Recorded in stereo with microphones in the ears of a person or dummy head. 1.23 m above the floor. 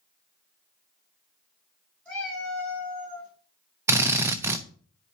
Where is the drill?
10° right (ahead or behind), 0.6 m.